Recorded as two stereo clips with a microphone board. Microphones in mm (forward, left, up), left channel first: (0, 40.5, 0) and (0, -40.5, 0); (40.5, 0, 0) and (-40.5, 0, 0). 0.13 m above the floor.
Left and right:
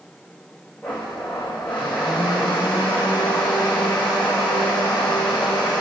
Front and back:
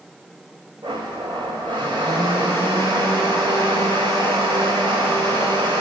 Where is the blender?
165° left, 3 m.